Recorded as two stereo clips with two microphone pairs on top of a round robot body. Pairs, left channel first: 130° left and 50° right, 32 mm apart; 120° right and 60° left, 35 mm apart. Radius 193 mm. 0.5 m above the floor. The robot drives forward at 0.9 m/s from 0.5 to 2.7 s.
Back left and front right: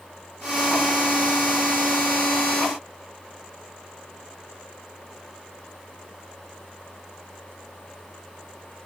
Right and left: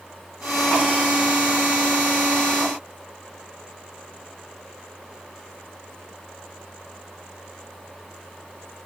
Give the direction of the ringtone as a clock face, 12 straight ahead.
I don't hear a ringtone.